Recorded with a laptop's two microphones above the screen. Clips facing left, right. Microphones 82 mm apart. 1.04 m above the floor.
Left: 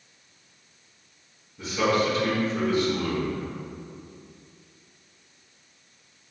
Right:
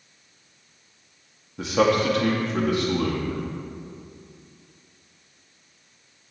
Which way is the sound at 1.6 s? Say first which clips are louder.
Right 3 dB; 75° right (ahead or behind).